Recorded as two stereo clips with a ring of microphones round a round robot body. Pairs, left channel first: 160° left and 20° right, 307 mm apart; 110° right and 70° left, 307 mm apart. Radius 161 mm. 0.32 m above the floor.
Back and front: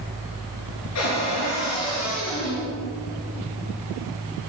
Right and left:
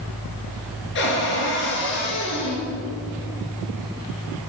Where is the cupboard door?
165° right, 3.5 m.